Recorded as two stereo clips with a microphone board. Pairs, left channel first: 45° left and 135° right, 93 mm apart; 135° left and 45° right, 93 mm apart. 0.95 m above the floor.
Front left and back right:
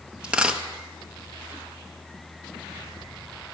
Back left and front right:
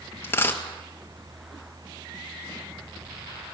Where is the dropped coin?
160° left, 1.0 m.